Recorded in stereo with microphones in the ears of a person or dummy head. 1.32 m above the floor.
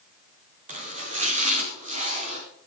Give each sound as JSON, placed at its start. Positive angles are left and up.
{"t": 0.7, "sound": "chopping", "side_deg": -35, "distance_m": 5.0}